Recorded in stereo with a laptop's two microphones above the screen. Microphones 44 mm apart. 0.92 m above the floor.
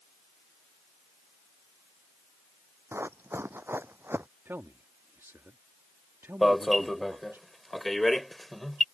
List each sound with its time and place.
2.9 s running footsteps: 70° right (ahead or behind); by 4.3 s 55° right (ahead or behind)
4.5 s a man speaking: 75° right (ahead or behind)
6.4 s an alarm: 5° left (ahead or behind)